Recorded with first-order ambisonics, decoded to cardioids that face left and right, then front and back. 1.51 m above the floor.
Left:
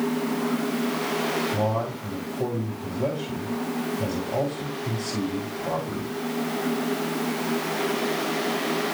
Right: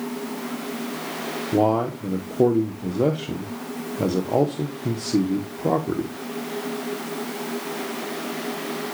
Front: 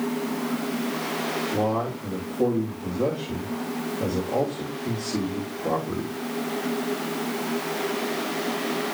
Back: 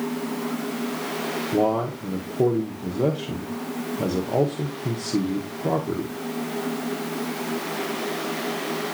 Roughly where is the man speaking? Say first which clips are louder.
Right 5 dB, back 6 dB; right.